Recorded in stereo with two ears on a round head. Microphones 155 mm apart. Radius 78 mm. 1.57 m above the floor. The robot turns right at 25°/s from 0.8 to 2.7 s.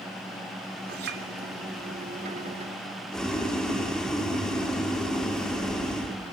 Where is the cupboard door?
No cupboard door in this recording.